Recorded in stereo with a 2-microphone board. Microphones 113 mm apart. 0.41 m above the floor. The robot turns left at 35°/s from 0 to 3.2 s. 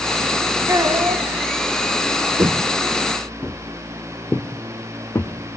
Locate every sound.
0.7 s a child speaking: 30° right (ahead or behind), 2.5 m; by 1.2 s 45° right (ahead or behind), 2.5 m
2.4 s footsteps: 40° right (ahead or behind), 0.7 m; by 5.6 s 20° left (ahead or behind), 2.5 m